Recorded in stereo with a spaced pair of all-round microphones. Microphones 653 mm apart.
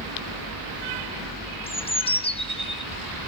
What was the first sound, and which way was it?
A bird, 10° left (ahead or behind).